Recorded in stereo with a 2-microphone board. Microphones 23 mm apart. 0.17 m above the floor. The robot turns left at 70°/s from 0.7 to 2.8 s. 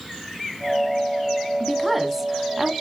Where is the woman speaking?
5° left (ahead or behind), 1.2 m; by 2.7 s 20° right (ahead or behind), 1.2 m.